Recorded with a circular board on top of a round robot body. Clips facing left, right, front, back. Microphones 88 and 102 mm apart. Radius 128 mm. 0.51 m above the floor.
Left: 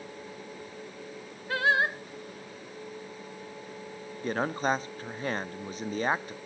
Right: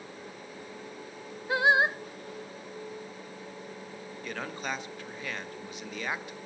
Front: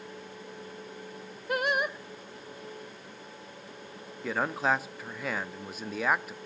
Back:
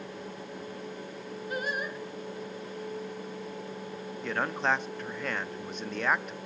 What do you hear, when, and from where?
1.5 s singing: 20° right, 0.8 m
4.2 s a man speaking: 80° left, 0.9 m